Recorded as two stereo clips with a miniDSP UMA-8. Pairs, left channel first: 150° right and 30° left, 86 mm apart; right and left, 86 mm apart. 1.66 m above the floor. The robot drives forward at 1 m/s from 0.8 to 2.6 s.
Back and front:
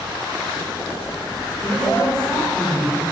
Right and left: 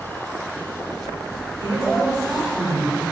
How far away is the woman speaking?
About 4 m.